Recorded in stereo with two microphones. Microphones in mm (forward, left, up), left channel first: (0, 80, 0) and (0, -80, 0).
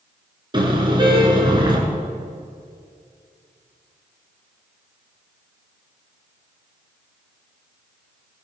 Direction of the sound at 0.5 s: 30° right (ahead or behind).